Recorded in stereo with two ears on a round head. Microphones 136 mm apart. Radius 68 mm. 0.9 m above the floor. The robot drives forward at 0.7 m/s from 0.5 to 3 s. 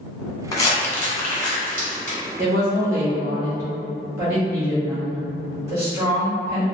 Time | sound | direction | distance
0.5 | crumpling | 25° left (ahead or behind) | 0.9 m
2.4 | a woman speaking | 25° right (ahead or behind) | 1.9 m